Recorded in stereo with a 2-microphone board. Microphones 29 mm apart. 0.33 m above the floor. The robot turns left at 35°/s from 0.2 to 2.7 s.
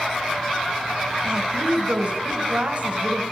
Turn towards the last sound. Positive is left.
turn(degrees=-100)